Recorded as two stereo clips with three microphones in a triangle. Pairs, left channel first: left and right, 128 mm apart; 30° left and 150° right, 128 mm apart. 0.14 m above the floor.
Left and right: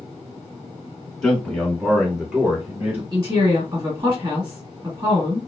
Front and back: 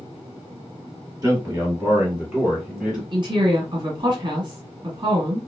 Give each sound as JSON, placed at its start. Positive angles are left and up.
{"t": 1.2, "sound": "a man speaking", "azimuth_deg": 175, "distance_m": 1.8}
{"t": 3.1, "sound": "a woman speaking", "azimuth_deg": -130, "distance_m": 2.0}